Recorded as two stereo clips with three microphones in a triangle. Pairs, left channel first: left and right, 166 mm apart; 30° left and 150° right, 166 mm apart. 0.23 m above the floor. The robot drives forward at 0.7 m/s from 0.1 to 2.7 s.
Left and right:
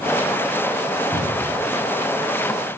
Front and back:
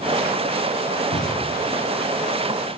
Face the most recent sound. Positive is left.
turn(degrees=35)